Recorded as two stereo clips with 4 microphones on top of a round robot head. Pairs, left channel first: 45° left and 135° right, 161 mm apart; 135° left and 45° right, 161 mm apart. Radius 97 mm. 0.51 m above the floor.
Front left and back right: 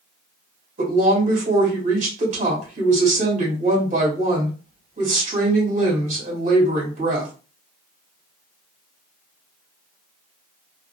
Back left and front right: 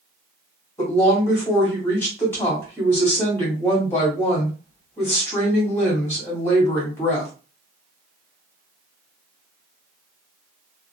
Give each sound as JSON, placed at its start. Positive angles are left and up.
{"t": 0.8, "sound": "a woman speaking", "azimuth_deg": -155, "distance_m": 1.5}